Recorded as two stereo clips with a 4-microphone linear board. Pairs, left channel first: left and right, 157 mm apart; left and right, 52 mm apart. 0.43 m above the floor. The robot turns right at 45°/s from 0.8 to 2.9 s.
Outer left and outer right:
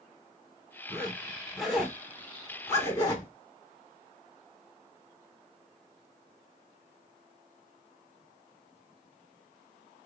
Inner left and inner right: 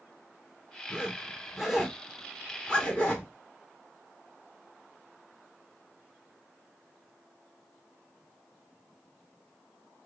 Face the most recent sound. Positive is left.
turn(degrees=20)  # may be behind; listen again after turning